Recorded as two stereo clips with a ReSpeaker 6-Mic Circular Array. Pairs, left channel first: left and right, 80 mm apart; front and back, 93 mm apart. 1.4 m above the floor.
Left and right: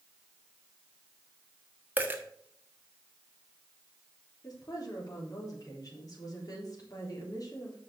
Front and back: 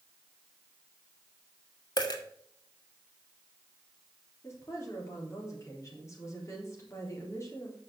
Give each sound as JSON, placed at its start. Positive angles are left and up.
{"t": 2.0, "sound": "a dropped coin", "azimuth_deg": -25, "distance_m": 1.4}
{"t": 4.4, "sound": "a woman speaking", "azimuth_deg": 55, "distance_m": 3.5}